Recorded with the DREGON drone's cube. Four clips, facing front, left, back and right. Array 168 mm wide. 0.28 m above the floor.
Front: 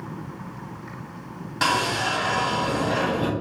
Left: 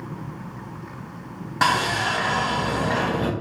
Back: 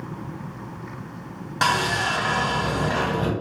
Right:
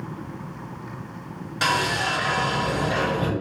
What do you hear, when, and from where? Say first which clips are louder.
1.6 s sawing: left 2 dB, back 1 dB; 120° left, 1.6 m